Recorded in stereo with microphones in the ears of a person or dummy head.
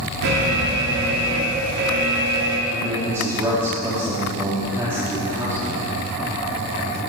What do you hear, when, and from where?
0.2 s an alarm: 65° right (ahead or behind), 1.9 m
2.7 s a man speaking: 10° right (ahead or behind), 3 m